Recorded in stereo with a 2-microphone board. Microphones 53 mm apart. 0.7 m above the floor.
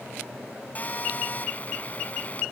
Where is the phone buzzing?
35° left (ahead or behind).